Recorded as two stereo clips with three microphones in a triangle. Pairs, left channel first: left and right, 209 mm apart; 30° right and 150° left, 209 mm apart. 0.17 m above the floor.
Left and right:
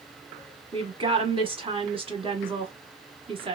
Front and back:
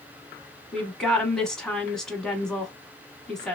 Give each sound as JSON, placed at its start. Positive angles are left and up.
{"t": 0.7, "sound": "a woman speaking", "azimuth_deg": -115, "distance_m": 1.1}